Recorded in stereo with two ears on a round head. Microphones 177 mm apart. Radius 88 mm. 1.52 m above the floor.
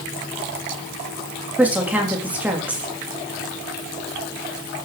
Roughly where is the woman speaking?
Centre.